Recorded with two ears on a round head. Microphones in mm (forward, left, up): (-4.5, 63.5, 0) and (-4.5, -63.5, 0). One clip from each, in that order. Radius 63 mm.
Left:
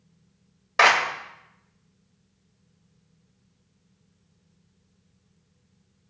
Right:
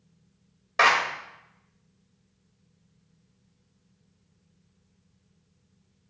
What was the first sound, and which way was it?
A clap, 10° left (ahead or behind).